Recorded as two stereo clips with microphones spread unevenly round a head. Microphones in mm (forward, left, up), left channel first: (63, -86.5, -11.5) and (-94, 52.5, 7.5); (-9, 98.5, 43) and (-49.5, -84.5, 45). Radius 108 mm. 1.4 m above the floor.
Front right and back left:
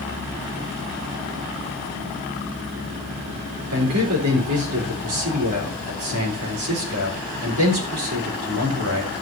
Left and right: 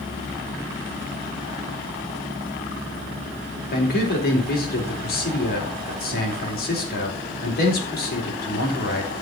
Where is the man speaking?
115° left, 4.5 m.